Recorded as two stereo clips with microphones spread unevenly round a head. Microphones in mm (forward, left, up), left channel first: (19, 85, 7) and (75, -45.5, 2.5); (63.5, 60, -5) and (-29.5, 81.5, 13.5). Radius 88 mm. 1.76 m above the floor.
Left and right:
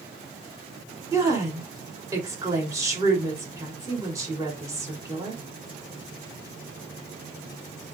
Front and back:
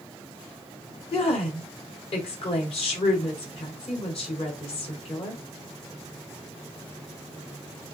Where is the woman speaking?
Straight ahead, 4 m.